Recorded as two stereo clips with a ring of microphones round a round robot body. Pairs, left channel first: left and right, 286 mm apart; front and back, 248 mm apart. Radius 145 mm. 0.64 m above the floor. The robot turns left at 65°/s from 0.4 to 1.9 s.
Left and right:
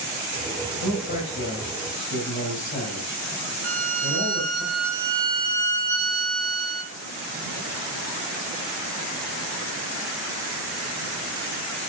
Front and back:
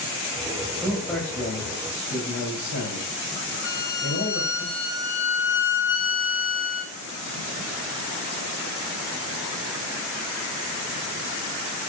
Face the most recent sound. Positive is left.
turn(degrees=-45)